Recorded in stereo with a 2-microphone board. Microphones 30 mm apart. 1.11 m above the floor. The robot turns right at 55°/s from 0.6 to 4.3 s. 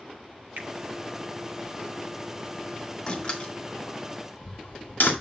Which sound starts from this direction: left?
A door slam, at 3.1 s.